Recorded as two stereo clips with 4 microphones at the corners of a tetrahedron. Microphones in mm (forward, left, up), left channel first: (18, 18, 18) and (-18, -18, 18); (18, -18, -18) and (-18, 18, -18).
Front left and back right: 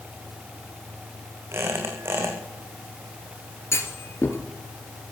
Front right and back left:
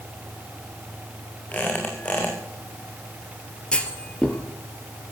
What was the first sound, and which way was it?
A squeak, 105° right.